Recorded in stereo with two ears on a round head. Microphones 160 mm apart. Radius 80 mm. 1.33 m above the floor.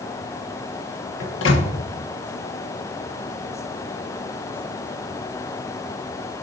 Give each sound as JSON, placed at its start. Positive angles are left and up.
{"t": 1.2, "sound": "a microwave", "side_deg": 90, "distance_m": 1.2}